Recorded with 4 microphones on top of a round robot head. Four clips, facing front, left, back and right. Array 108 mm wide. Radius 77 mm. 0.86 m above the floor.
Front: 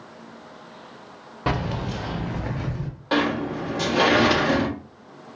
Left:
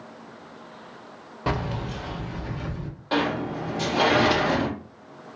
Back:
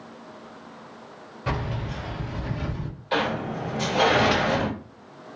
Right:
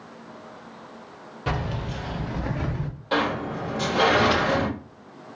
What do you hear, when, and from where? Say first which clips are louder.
1.5 s keys jangling: left 1 dB, front 4 dB; 25° left, 1.0 m; by 2.9 s 75° right, 1.0 m
3.1 s a sliding door: even, front 3 dB; 15° left, 1.7 m